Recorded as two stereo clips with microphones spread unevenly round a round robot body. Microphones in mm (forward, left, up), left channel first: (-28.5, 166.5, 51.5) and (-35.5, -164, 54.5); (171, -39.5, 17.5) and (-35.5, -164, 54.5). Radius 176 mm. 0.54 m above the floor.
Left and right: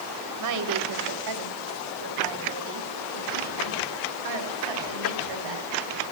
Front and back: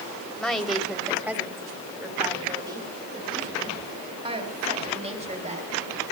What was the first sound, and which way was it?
A woman speaking, 55° right.